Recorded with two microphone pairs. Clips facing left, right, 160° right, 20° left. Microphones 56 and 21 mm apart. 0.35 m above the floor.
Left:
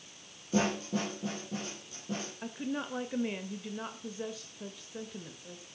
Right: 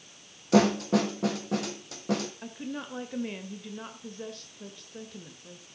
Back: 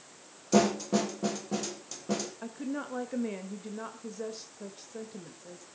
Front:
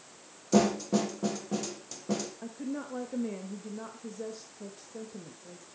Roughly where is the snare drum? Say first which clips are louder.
Right 8 dB, even; right.